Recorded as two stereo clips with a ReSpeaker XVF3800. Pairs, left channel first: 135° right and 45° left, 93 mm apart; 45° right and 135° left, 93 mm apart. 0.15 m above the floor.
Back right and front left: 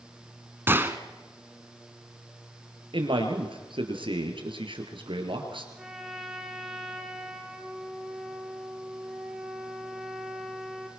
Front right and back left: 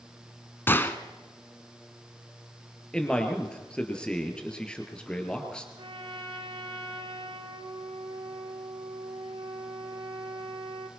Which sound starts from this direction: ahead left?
A man speaking, at 2.9 s.